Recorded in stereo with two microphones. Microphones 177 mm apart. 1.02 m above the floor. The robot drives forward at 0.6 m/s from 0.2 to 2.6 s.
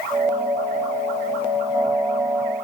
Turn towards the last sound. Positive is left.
No sound to turn to.